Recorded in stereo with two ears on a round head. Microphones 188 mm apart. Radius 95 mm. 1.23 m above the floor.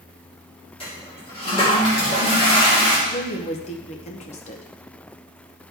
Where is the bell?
No bell in this recording.